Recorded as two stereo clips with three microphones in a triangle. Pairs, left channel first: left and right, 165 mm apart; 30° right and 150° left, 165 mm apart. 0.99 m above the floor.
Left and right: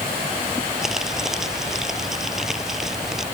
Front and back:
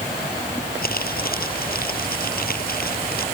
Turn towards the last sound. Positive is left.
turn(degrees=-5)